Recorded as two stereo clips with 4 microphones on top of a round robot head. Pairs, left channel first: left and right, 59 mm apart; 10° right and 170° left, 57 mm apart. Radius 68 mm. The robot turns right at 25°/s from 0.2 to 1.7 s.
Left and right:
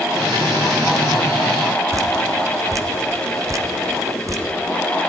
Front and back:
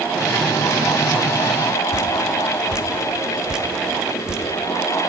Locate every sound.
1.9 s dripping: 110° right, 1.0 m